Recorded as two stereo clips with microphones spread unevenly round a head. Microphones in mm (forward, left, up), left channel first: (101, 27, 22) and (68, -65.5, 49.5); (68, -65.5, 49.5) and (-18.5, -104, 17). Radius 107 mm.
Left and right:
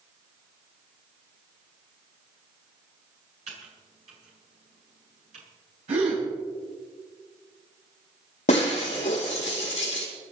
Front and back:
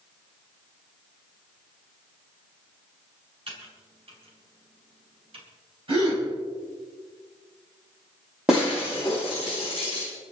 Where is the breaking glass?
110° left, 3 m.